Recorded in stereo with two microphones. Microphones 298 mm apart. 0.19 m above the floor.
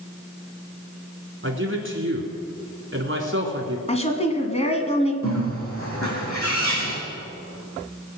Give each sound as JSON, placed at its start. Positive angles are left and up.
{"t": 1.4, "sound": "a man speaking", "side_deg": -45, "distance_m": 2.5}
{"t": 3.9, "sound": "a woman speaking", "side_deg": 20, "distance_m": 1.5}
{"t": 5.2, "sound": "a bird", "side_deg": 45, "distance_m": 4.5}